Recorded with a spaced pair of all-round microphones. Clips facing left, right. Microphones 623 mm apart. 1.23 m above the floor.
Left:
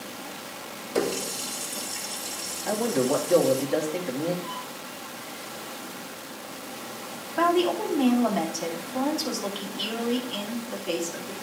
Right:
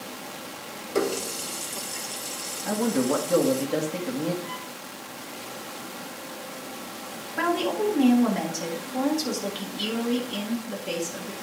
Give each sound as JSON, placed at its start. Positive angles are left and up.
{"t": 0.9, "sound": "a running tap", "side_deg": 20, "distance_m": 1.4}
{"t": 2.6, "sound": "a man speaking", "side_deg": -35, "distance_m": 3.0}
{"t": 4.4, "sound": "a violin", "side_deg": -55, "distance_m": 6.0}
{"t": 7.4, "sound": "a woman speaking", "side_deg": -50, "distance_m": 3.0}